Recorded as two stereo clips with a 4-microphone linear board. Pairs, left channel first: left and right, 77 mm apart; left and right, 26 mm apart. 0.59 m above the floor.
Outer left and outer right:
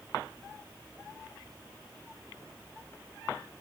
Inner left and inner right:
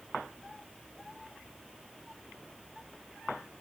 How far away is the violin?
No violin in this recording.